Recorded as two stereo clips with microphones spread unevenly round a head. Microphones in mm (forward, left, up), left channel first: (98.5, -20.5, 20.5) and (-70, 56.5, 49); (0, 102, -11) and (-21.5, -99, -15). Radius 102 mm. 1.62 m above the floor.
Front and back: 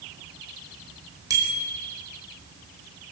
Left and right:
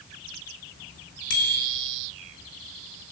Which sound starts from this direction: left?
A bicycle bell, at 1.3 s.